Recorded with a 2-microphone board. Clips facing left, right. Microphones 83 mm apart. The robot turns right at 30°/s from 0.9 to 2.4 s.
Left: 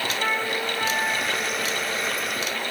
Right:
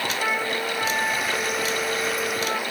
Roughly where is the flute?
Behind.